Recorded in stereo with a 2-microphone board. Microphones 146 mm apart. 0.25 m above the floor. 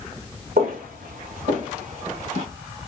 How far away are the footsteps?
About 1.4 m.